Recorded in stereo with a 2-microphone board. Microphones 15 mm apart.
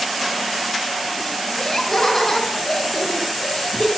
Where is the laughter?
20° left (ahead or behind), 2.5 m.